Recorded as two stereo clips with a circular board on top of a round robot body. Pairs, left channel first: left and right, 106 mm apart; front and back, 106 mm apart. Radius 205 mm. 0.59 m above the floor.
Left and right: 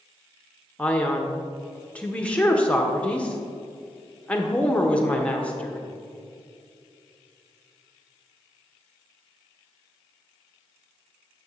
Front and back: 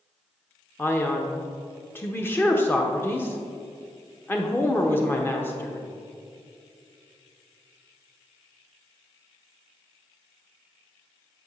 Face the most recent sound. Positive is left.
turn(degrees=30)